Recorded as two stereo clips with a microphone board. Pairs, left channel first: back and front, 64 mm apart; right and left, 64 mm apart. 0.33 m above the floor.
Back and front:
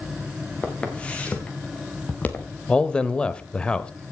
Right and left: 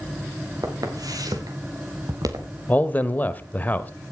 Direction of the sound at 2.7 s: 120° right.